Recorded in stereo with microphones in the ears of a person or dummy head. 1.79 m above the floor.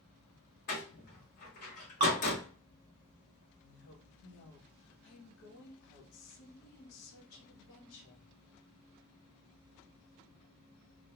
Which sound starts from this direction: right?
Dripping, at 2.0 s.